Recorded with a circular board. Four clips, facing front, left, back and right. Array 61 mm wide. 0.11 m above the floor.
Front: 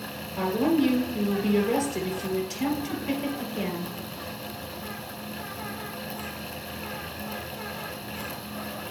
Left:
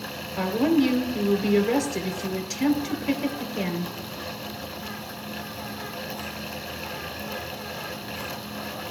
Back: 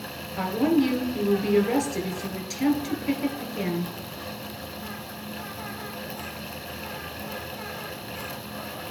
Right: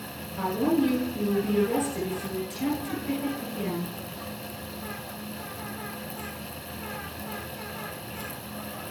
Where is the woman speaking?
120° left, 2 m.